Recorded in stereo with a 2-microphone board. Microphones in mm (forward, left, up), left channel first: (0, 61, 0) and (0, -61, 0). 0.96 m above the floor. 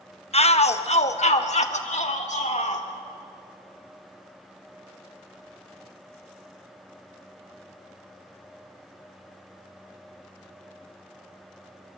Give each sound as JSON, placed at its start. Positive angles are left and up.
{"t": 0.3, "sound": "a shout", "side_deg": 60, "distance_m": 1.0}